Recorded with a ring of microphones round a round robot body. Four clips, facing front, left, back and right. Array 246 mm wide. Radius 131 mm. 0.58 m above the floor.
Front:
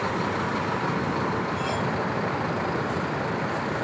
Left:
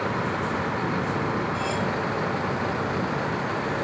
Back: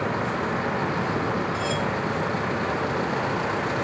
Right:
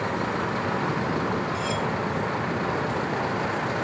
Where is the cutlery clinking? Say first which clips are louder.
Left 1 dB, back 1 dB; 140° right, 5 m.